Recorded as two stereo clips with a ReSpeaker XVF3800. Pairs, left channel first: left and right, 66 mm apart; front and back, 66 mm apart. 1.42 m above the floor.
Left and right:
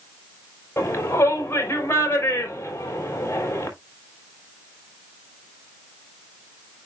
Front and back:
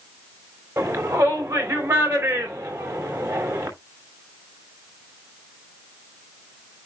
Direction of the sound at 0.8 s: 140° left.